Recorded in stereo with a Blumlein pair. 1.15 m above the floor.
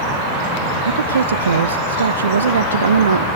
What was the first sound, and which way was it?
A woman speaking, 70° right.